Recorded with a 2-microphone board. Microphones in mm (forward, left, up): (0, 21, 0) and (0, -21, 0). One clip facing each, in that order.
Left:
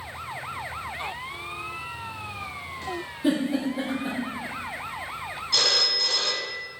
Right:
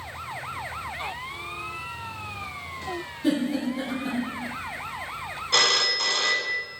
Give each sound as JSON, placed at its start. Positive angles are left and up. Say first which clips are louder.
{"t": 3.2, "sound": "a giggle", "louder": "even", "side_deg": 15, "distance_m": 3.0}
{"t": 5.5, "sound": "a phone ringing", "louder": "right 3 dB", "side_deg": -50, "distance_m": 0.8}